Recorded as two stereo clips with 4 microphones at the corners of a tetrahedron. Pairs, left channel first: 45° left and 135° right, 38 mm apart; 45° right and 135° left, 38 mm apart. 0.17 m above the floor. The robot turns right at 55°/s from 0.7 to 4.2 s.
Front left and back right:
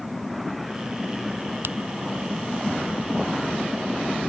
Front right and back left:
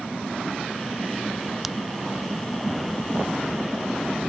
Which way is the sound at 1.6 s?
140° right.